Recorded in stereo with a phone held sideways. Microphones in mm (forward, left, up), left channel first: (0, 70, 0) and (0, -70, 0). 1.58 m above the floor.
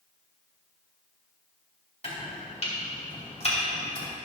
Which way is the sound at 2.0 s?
45° left (ahead or behind).